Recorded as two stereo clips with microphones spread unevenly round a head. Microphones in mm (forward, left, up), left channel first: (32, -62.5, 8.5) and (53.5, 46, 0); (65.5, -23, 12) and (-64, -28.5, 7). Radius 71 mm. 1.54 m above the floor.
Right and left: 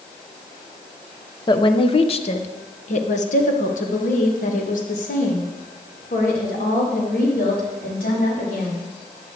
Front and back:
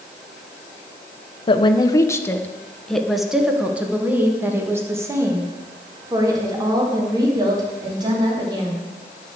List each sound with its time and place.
1.5 s a woman speaking: 50° right, 1.1 m; by 8.9 s 120° right, 4.5 m